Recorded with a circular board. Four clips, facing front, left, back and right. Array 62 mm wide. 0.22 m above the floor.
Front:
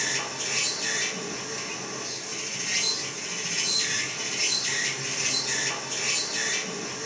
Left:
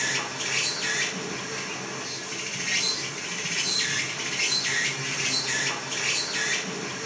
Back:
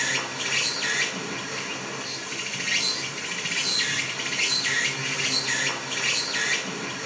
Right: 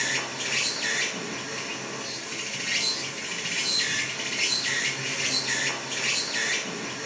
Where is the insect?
165° right, 1.0 m.